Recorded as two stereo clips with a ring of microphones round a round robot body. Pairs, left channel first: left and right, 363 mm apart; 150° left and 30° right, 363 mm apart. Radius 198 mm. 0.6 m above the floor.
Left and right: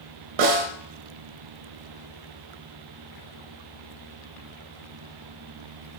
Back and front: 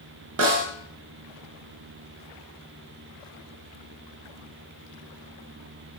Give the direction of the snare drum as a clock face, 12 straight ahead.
3 o'clock.